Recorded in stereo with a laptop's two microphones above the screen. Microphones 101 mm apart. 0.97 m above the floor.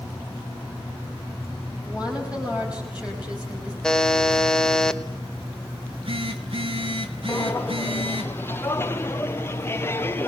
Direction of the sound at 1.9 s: 10° right (ahead or behind).